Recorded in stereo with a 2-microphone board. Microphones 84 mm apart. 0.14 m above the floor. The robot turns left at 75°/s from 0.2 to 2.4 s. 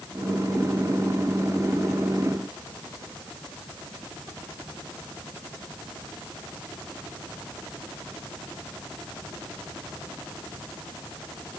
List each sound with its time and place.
Only background noise.